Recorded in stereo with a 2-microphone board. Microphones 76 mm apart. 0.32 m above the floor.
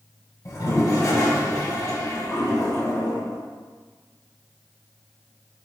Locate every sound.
0.5 s a toilet flushing: 50° left (ahead or behind), 1.5 m